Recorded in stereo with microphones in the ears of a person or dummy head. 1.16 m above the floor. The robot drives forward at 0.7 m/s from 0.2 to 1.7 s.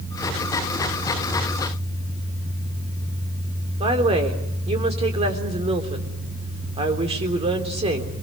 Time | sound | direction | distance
3.8 | a woman speaking | 30° right (ahead or behind) | 3.5 m